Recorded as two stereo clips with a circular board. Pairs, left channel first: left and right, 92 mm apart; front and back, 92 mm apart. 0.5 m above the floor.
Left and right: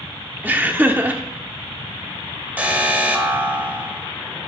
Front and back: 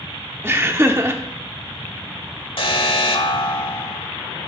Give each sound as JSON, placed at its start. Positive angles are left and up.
{"t": 0.4, "sound": "laughter", "azimuth_deg": -145, "distance_m": 0.9}
{"t": 2.6, "sound": "an alarm", "azimuth_deg": -15, "distance_m": 1.2}